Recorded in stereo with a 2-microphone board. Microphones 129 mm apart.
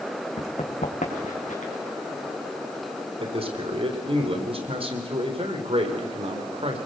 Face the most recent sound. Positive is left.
turn(degrees=-45)  # may be behind; listen again after turning